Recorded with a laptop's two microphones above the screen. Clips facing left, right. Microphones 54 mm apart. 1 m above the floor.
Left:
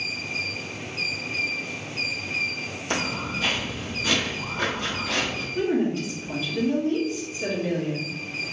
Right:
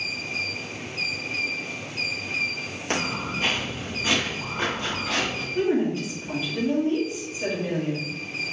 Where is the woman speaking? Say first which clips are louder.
Right 1 dB; 20° right (ahead or behind), 1.5 m.